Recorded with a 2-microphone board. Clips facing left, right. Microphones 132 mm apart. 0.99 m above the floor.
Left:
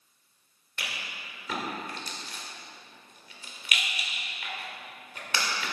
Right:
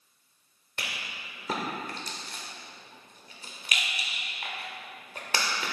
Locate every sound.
0.8 s a rattle: 40° right (ahead or behind), 1.6 m